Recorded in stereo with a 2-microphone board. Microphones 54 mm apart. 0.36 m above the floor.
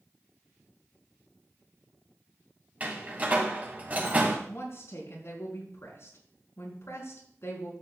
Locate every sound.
2.8 s a door slam: 30° right (ahead or behind), 2 m
4.5 s a woman speaking: 60° left (ahead or behind), 4 m